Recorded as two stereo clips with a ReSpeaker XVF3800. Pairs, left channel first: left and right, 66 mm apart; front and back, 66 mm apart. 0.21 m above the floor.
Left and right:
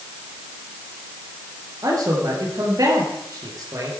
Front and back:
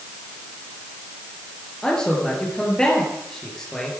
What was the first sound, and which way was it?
A man speaking, 80° right.